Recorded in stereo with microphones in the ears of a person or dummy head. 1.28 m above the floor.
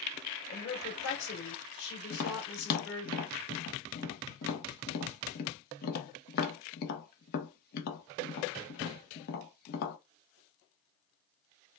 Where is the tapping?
55° left (ahead or behind), 0.8 m.